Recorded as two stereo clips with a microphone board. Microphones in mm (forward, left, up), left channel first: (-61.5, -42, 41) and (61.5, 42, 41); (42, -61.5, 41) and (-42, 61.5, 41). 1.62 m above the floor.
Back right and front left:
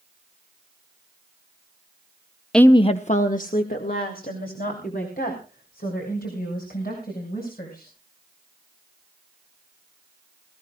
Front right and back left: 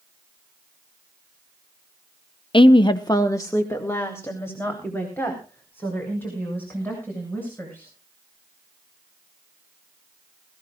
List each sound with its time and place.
2.5 s a woman speaking: 60° right, 0.5 m; by 7.9 s 135° right, 8 m